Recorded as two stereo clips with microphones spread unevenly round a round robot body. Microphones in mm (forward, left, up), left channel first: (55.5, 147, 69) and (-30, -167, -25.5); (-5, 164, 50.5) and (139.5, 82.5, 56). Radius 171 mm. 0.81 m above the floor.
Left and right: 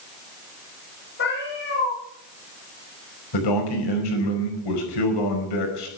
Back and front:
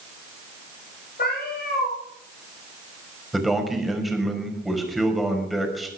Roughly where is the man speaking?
Ahead left.